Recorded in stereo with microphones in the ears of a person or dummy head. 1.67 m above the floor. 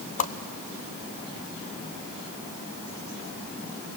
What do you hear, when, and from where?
0.2 s a whoosh: 40° left (ahead or behind), 0.9 m